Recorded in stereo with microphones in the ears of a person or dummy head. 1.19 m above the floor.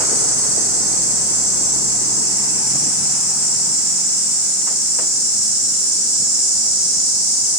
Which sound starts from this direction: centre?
An insect, at 0.0 s.